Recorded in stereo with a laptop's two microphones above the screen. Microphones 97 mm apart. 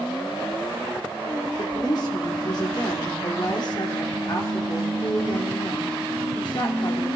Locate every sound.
1.6 s a woman speaking: 50° left (ahead or behind), 2 m